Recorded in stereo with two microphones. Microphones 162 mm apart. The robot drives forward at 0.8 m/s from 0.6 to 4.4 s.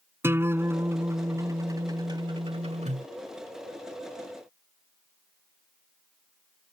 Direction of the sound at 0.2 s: 15° right (ahead or behind).